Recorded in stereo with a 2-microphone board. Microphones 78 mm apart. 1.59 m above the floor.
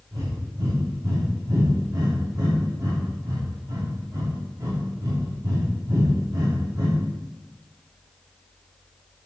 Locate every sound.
0.1 s breathing: 45° right (ahead or behind), 3 m